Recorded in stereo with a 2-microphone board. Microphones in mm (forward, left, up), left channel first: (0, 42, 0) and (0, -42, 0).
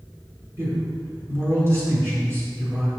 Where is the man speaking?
30° right (ahead or behind), 3.5 m.